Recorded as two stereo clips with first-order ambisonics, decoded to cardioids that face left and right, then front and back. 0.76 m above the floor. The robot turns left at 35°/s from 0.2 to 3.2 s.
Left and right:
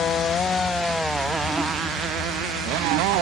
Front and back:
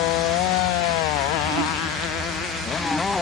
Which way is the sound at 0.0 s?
25° left.